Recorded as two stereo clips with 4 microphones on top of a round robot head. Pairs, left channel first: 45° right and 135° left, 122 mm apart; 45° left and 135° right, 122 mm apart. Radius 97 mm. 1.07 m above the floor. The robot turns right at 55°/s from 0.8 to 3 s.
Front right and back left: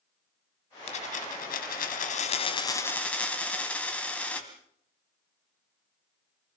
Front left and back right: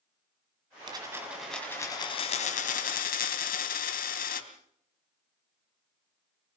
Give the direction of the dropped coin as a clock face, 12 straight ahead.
3 o'clock.